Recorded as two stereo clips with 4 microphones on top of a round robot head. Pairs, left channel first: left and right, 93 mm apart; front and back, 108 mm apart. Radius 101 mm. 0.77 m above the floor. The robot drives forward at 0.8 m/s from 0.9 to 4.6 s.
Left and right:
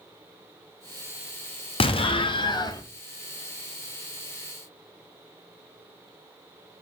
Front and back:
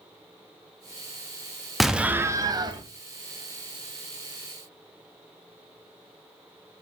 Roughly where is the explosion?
Left.